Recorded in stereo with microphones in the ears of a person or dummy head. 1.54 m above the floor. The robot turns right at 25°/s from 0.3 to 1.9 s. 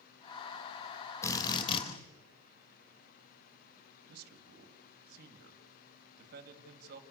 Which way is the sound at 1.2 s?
20° left (ahead or behind).